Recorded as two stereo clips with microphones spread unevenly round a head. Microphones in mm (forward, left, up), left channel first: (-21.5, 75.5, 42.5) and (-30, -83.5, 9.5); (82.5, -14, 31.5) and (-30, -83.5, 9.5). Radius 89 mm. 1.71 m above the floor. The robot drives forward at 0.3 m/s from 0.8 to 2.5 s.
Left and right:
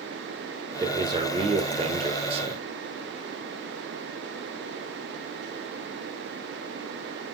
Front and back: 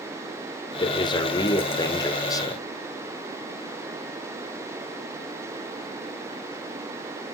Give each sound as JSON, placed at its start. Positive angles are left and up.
{"t": 0.8, "sound": "a man speaking", "azimuth_deg": -20, "distance_m": 1.9}